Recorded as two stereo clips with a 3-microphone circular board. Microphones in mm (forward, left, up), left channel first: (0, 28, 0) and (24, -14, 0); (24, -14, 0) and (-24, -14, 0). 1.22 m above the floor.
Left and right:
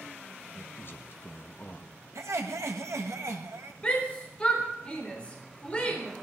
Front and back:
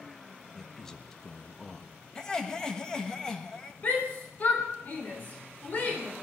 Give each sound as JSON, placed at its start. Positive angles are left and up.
{"t": 0.5, "sound": "a man speaking", "azimuth_deg": 80, "distance_m": 1.3}
{"t": 2.1, "sound": "laughter", "azimuth_deg": -75, "distance_m": 1.5}
{"t": 3.8, "sound": "a shout", "azimuth_deg": 55, "distance_m": 3.5}